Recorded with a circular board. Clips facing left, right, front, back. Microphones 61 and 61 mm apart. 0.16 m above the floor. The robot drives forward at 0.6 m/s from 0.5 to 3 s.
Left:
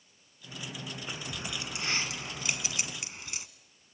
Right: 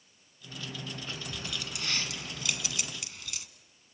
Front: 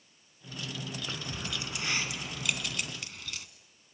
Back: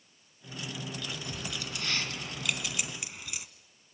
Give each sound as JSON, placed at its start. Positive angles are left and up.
{"t": 1.1, "sound": "keys jangling", "azimuth_deg": 30, "distance_m": 1.5}